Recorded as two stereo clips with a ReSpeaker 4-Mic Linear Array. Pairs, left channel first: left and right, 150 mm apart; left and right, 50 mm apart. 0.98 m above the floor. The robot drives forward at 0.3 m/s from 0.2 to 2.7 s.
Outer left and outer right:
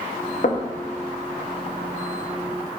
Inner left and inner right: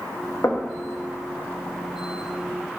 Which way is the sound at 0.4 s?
60° left (ahead or behind).